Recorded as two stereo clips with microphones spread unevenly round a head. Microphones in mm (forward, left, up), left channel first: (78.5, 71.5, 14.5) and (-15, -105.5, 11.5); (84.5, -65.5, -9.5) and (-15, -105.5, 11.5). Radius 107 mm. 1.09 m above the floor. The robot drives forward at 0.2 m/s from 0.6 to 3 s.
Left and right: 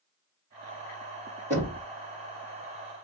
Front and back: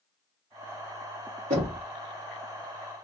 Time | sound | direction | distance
1.5 | knocking | straight behind | 1.7 m